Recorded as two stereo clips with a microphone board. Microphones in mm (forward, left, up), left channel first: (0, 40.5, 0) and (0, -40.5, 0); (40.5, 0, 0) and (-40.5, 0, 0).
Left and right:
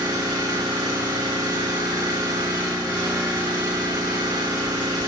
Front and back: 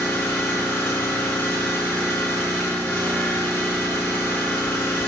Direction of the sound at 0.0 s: 60° right.